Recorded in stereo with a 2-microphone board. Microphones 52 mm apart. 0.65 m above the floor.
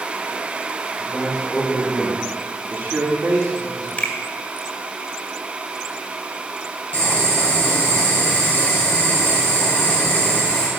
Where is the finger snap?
25° left (ahead or behind), 1.6 m.